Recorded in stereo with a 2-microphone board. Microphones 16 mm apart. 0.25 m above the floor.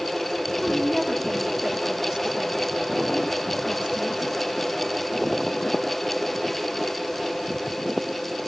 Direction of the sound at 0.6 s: 55° right (ahead or behind).